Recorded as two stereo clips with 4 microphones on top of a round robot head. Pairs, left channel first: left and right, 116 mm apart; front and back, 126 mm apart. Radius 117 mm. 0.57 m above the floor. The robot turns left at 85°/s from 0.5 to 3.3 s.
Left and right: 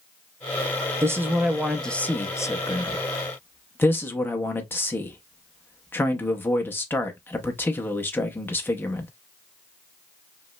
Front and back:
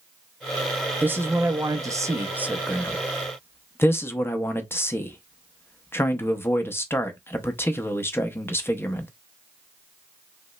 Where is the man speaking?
120° right, 0.7 m; by 9.1 s 45° left, 0.7 m.